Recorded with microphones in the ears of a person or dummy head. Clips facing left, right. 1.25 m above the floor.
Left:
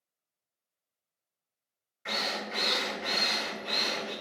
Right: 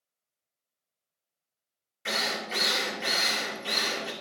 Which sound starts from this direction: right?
A drill, at 2.0 s.